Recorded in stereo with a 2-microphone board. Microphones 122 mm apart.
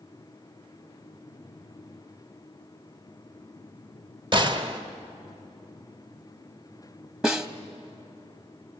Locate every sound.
4.3 s a gunshot: 40° right (ahead or behind), 1.2 m
7.2 s a snare drum: 5° right (ahead or behind), 0.8 m